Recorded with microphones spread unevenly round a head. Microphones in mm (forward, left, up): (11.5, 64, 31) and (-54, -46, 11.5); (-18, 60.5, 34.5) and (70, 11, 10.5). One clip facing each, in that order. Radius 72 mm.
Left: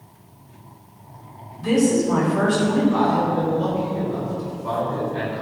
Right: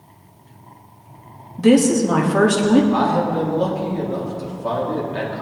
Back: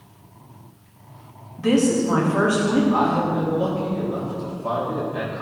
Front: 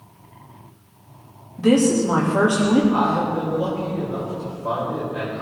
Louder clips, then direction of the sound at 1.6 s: Right 4 dB, front 2 dB; 100° right.